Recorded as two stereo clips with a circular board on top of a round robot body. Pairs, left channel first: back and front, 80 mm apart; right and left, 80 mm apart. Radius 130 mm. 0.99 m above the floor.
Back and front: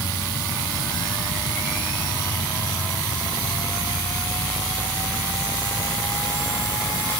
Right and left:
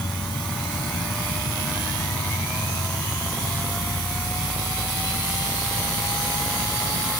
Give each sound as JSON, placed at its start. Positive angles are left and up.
{"t": 0.0, "sound": "an insect", "azimuth_deg": -110}